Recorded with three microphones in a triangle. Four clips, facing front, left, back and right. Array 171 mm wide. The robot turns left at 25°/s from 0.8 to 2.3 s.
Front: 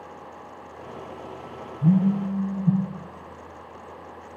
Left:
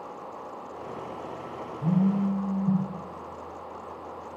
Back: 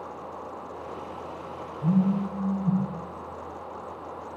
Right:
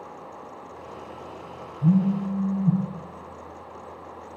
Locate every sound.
1.8 s a phone buzzing: 5° right, 3 m; by 2.8 s 15° right, 3 m